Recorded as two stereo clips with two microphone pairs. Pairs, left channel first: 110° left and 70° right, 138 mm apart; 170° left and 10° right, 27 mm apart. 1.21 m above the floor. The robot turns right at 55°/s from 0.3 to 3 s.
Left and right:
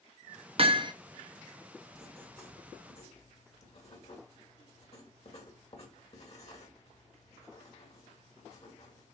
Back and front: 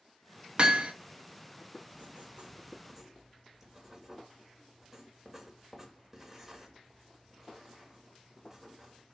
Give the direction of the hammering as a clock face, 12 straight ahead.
1 o'clock.